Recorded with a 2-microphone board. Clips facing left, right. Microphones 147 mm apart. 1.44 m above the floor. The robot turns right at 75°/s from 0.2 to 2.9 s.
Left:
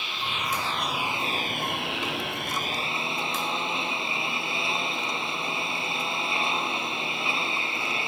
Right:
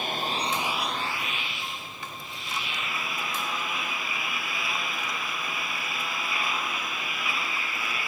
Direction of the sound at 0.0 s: 50° right.